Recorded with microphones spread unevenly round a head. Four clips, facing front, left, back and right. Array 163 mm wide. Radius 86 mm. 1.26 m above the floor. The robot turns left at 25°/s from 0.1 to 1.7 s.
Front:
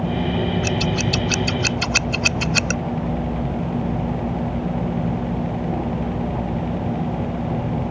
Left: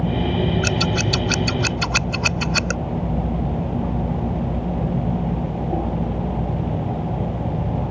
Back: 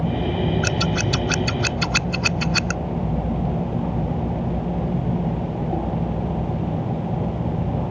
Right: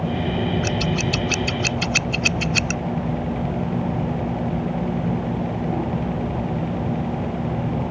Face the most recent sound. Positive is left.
turn(degrees=75)